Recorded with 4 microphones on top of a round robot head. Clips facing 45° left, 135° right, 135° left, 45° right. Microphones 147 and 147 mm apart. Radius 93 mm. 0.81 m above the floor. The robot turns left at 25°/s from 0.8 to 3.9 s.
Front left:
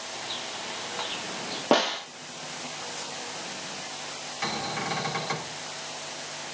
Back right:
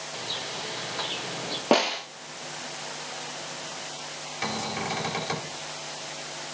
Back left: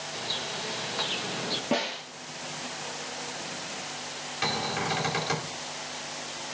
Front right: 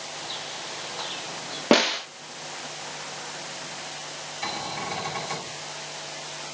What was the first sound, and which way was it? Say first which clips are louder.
A bird: back right 3 dB, back left 2 dB; 175° left.